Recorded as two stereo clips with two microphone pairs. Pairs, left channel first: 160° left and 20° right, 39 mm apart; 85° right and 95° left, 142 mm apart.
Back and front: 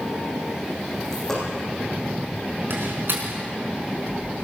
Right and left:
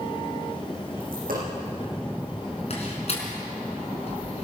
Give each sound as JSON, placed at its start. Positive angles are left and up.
{"t": 1.0, "sound": "a dropped coin", "azimuth_deg": 85, "distance_m": 9.0}
{"t": 2.7, "sound": "a door slam", "azimuth_deg": -40, "distance_m": 4.5}